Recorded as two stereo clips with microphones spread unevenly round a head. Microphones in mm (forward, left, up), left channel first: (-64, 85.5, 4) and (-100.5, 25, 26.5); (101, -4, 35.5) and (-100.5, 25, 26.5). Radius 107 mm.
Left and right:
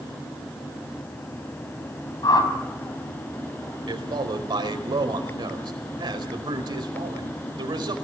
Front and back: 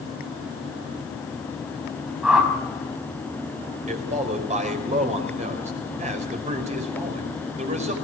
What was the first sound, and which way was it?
A whoosh, 85° left.